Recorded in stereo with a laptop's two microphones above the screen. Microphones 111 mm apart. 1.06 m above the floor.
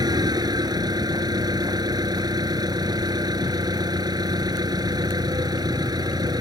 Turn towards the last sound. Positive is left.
turn(degrees=-35)  # may be behind; listen again after turning